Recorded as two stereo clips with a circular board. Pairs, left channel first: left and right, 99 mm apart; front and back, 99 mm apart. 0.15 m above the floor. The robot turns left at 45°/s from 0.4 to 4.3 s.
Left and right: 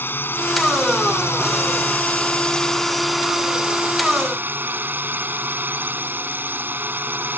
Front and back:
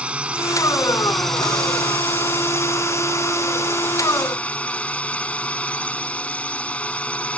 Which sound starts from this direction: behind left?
A drone, at 0.0 s.